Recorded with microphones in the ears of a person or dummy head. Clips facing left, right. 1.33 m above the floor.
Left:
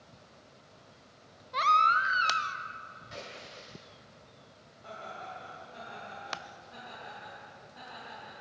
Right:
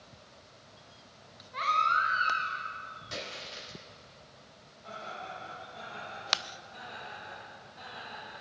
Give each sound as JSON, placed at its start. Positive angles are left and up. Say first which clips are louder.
{"t": 1.5, "sound": "a baby crying", "louder": "left 3 dB", "side_deg": 60, "distance_m": 0.6}
{"t": 3.1, "sound": "a splash", "louder": "right 3 dB", "side_deg": -65, "distance_m": 3.5}
{"t": 4.8, "sound": "laughter", "louder": "right 1 dB", "side_deg": 65, "distance_m": 3.0}